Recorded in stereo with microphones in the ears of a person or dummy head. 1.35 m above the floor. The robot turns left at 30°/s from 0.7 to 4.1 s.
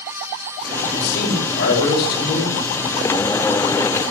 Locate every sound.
0.9 s a man speaking: 60° left, 5 m; by 2.6 s 10° left, 5 m